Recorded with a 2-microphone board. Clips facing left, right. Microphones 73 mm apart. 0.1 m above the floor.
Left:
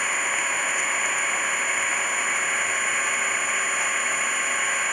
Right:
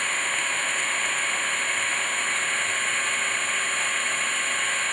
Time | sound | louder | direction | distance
0.0 | an engine running | left 2 dB | 10° left (ahead or behind) | ?